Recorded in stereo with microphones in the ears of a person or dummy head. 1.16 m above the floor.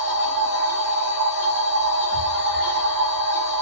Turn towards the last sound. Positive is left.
turn(degrees=-40)  # may be behind; listen again after turning